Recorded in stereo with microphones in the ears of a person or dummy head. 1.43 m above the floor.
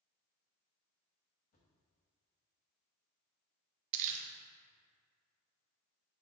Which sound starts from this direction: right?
Crumpling, at 3.9 s.